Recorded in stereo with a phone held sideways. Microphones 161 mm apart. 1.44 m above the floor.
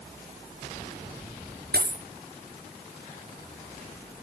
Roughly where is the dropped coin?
Right.